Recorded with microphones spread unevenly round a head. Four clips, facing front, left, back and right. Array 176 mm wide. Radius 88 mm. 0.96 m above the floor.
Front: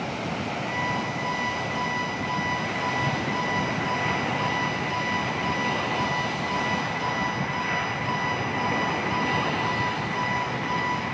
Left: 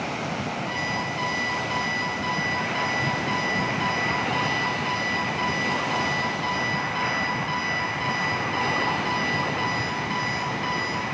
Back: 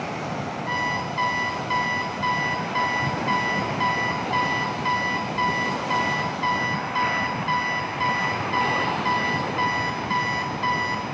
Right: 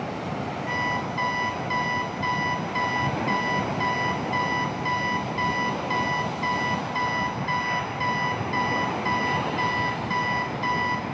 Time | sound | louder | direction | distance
0.7 | an alarm clock | right 1 dB, back 3 dB | 160° right | 3 m